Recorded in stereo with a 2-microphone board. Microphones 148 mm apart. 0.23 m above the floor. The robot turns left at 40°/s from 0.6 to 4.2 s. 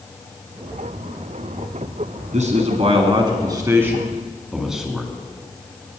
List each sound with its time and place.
2.3 s a man speaking: 55° right (ahead or behind), 1.8 m; by 6.0 s 5° right (ahead or behind), 1.8 m